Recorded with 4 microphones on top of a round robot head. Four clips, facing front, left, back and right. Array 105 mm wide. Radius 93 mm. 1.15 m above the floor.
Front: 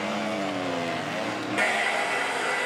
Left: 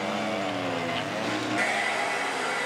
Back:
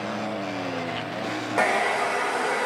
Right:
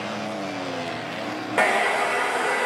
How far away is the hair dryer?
About 0.7 m.